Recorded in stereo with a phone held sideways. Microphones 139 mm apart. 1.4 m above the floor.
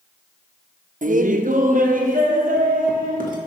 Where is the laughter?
70° right (ahead or behind), 0.5 m; by 3.4 s 80° right, 2 m.